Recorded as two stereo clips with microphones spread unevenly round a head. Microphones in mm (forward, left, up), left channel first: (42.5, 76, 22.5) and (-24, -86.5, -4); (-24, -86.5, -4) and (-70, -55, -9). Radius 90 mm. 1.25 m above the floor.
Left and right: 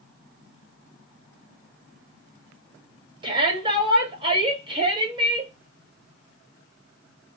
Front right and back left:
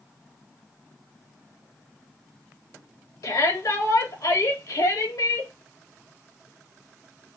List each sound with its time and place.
3.2 s a shout: 50° right, 2 m